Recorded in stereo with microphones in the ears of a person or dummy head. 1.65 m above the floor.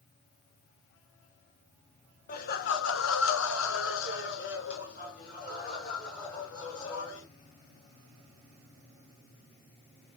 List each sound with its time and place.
2.3 s laughter: 40° left (ahead or behind), 0.9 m